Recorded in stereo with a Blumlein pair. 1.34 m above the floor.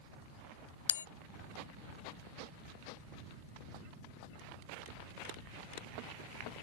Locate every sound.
0.9 s a bell: 65° left